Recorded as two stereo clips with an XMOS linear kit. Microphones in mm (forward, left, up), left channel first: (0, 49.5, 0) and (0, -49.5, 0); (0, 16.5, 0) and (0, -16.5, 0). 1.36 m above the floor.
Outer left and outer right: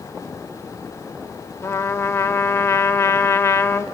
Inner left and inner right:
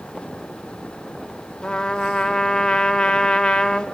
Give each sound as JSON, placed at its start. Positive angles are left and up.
{"t": 1.6, "sound": "a trumpet", "side_deg": 30, "distance_m": 0.9}